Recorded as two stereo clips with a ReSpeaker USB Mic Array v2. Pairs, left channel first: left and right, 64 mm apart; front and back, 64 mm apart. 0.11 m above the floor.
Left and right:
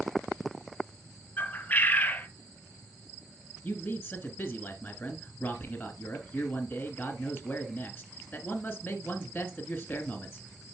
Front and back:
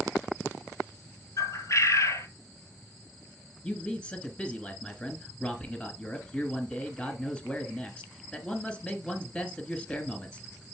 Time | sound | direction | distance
1.4 | a bird | 30° left | 0.6 m
3.6 | a man speaking | 60° left | 1.1 m